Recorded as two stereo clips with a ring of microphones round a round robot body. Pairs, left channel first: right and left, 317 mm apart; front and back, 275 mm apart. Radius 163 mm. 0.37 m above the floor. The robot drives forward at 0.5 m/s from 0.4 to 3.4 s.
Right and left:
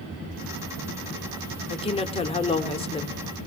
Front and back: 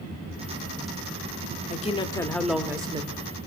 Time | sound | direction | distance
1.7 | a woman speaking | 30° right | 0.9 m